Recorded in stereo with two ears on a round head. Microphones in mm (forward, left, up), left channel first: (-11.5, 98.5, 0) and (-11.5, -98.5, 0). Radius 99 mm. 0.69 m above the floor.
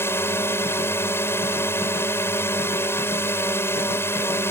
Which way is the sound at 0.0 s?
10° left (ahead or behind).